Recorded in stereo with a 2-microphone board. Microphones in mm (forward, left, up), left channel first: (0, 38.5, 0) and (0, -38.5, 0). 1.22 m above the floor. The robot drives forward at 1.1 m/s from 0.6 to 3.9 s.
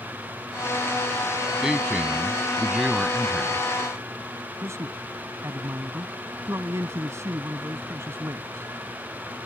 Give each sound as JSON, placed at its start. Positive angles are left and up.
{"t": 1.6, "sound": "a man speaking", "side_deg": -5}
{"t": 4.6, "sound": "a man speaking", "side_deg": -35}